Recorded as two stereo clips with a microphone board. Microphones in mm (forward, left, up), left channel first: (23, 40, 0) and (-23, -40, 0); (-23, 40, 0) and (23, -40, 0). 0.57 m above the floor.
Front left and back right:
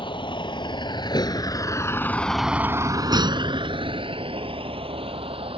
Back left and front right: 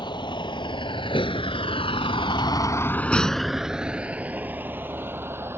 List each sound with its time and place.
0.0 s a vehicle: 85° left; by 5.6 s 125° right